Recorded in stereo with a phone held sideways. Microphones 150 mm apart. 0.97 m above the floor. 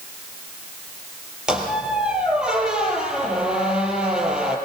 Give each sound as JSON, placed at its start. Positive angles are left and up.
{"t": 1.5, "sound": "a squeak", "side_deg": -5, "distance_m": 4.5}